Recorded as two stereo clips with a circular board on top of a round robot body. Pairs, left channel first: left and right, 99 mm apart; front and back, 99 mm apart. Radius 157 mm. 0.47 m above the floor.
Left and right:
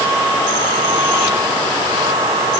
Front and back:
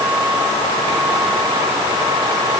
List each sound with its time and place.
Only background noise.